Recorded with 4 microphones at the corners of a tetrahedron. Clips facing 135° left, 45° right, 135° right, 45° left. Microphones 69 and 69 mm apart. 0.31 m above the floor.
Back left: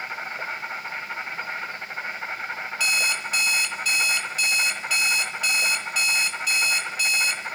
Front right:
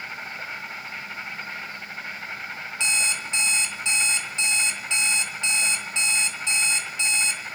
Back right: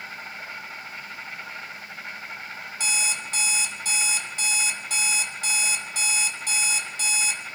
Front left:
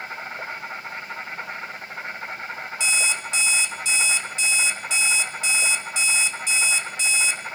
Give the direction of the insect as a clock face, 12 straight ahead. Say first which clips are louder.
Back left 3 dB, front left 5 dB; 9 o'clock.